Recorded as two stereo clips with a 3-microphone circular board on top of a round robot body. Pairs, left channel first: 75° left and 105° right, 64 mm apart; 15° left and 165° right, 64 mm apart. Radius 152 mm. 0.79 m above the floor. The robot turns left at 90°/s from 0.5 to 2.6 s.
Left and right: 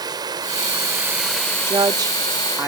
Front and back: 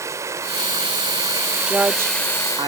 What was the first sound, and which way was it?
Running water, 120° right.